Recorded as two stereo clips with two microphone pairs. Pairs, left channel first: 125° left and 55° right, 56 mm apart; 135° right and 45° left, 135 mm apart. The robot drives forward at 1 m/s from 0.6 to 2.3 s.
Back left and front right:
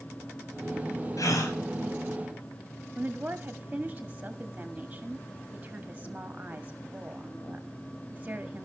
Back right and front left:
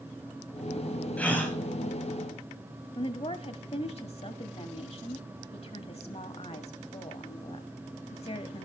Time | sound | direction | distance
1.2 | a gasp | 140° left | 3.5 m
3.0 | a woman speaking | 110° right | 1.8 m